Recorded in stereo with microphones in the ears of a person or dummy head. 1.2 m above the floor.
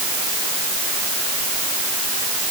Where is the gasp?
No gasp in this recording.